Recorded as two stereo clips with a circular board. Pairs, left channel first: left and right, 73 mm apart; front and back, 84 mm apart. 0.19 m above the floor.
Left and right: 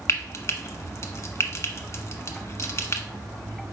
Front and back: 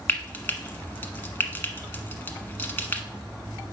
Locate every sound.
0.1 s frying: 60° left, 0.9 m